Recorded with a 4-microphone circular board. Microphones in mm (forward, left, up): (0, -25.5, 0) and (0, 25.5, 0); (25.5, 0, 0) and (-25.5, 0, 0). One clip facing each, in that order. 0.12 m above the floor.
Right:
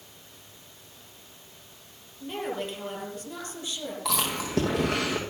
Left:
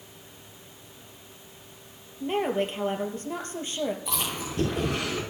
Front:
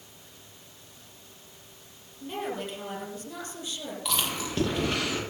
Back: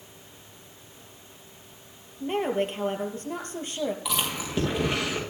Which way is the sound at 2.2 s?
135° left.